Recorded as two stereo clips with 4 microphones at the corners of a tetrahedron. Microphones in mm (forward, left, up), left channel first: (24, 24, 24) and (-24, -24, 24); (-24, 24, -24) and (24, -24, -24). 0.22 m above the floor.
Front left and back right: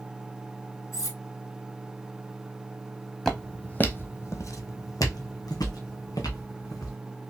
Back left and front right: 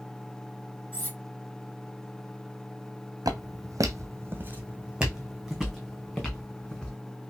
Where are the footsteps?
40° right, 0.8 m; by 7.0 s 60° left, 1.7 m.